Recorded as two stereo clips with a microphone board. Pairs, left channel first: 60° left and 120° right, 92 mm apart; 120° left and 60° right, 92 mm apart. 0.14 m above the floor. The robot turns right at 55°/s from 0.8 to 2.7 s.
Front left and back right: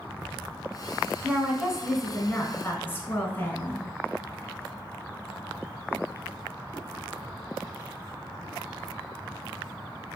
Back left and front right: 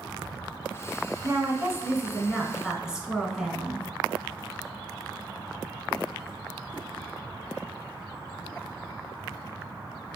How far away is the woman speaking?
About 1.3 m.